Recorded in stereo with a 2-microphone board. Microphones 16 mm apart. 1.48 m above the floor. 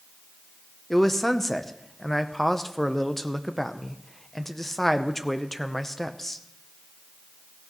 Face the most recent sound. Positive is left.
turn(degrees=20)  # may be behind; listen again after turning